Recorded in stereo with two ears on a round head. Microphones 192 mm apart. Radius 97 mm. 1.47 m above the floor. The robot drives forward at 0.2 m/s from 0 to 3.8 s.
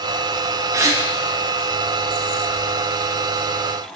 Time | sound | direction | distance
0.7 | a gasp | 15° right (ahead or behind) | 0.8 m